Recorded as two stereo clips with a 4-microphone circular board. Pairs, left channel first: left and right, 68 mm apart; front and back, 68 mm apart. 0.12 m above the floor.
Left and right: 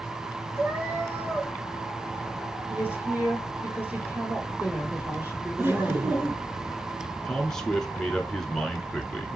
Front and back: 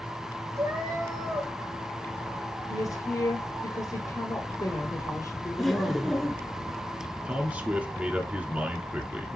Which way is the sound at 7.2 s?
160° left.